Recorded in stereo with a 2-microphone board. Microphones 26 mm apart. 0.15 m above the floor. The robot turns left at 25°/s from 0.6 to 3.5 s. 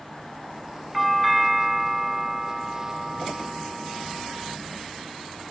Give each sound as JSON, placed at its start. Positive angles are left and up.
{"t": 0.9, "sound": "a doorbell", "side_deg": 0}